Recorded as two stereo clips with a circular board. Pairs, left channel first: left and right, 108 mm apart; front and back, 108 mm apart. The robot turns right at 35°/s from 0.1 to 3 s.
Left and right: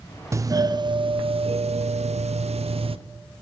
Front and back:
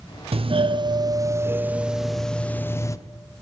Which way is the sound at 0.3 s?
150° right.